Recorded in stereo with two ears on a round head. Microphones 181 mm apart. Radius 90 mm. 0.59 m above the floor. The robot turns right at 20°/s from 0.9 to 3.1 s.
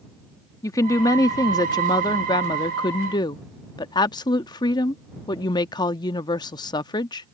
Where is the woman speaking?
15° left (ahead or behind); by 7.3 s 20° left (ahead or behind).